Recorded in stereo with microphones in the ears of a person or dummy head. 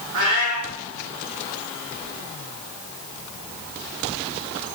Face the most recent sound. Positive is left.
turn(degrees=-50)  # may be behind; listen again after turning